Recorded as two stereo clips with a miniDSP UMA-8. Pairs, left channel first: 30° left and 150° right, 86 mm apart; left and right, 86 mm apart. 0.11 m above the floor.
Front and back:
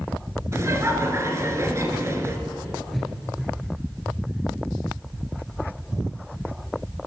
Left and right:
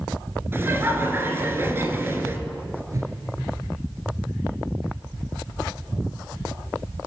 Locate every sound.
0.5 s laughter: 130° right, 1.7 m
2.9 s a whoosh: 60° right, 2 m